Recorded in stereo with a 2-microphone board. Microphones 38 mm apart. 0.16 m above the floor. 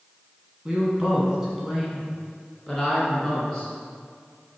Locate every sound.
0.7 s a woman speaking: 25° right (ahead or behind), 1.6 m; by 3.7 s 15° left (ahead or behind), 2.5 m